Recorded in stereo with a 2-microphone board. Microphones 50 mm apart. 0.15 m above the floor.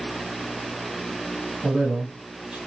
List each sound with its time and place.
1.6 s a man speaking: 35° right (ahead or behind), 1.9 m